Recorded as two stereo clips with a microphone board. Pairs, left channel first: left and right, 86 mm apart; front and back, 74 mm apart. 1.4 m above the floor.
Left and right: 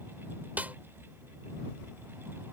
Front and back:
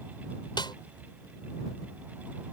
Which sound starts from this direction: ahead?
A snare drum, at 0.6 s.